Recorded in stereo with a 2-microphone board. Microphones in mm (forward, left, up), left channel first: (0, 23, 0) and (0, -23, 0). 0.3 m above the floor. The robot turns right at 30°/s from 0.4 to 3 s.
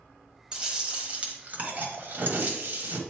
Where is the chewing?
155° right, 1.2 m; by 3.0 s 80° right, 1.2 m.